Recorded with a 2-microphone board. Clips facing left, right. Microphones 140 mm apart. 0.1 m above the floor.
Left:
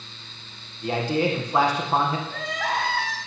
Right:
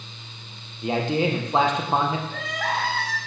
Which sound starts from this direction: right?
A man speaking, at 0.8 s.